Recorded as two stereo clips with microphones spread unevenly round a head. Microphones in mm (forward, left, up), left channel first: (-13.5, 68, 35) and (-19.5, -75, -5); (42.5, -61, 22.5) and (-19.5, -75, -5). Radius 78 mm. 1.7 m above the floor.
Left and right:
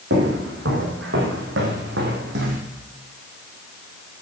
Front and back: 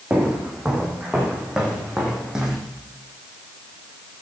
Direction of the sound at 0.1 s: 90° right.